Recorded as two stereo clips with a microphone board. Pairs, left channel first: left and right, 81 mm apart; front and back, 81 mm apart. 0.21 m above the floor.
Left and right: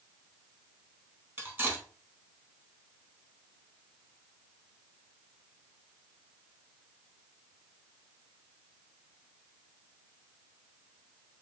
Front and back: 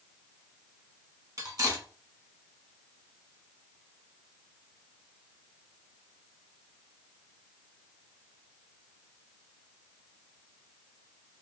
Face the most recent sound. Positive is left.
turn(degrees=-145)